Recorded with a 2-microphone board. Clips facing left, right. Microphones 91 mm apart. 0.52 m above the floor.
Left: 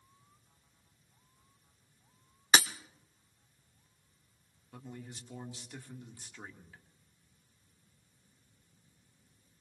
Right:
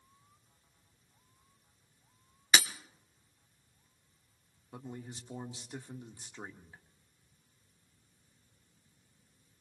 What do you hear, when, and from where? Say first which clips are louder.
2.5 s breaking glass: left 2 dB; 40° left (ahead or behind), 0.9 m
4.7 s a man speaking: right 2 dB; 25° right (ahead or behind), 1.3 m